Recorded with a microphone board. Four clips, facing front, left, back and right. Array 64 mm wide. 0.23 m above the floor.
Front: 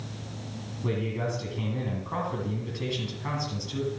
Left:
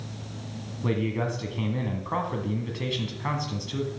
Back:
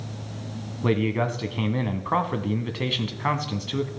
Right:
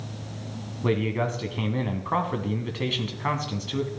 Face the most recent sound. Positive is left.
turn(degrees=-160)